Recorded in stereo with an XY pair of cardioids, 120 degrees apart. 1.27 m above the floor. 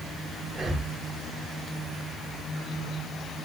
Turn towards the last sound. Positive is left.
turn(degrees=-20)